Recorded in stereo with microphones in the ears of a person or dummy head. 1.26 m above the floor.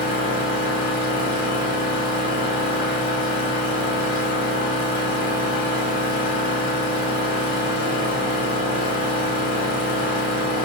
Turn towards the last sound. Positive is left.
turn(degrees=25)  # may be behind; listen again after turning